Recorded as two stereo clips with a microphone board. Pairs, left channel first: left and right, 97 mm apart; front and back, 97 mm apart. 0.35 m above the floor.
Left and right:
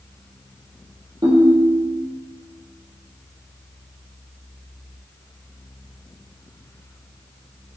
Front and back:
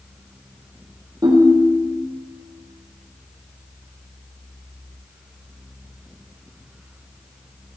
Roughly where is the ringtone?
Behind right.